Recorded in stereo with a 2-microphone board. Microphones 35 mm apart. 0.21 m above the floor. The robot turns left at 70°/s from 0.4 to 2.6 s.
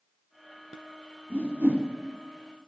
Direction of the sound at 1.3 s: 75° right (ahead or behind).